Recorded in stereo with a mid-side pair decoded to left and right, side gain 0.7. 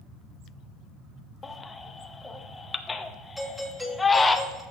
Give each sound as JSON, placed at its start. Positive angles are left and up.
{"t": 1.4, "sound": "a baby crying", "azimuth_deg": 15, "distance_m": 0.7}
{"t": 3.4, "sound": "a doorbell", "azimuth_deg": -5, "distance_m": 3.0}